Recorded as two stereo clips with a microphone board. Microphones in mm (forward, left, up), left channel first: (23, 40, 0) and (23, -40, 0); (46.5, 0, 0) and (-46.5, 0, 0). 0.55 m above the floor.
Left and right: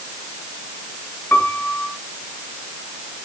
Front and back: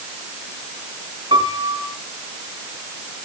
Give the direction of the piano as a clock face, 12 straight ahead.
7 o'clock.